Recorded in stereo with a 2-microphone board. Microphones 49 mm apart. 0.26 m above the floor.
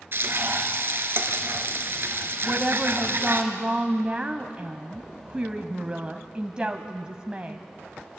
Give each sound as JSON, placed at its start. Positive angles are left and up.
{"t": 0.1, "sound": "frying", "side_deg": -50, "distance_m": 2.0}
{"t": 2.4, "sound": "a woman speaking", "side_deg": -20, "distance_m": 1.5}